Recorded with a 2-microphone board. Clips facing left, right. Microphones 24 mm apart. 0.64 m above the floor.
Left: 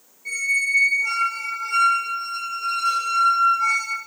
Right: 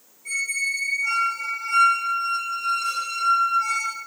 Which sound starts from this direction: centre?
A squeak, at 0.2 s.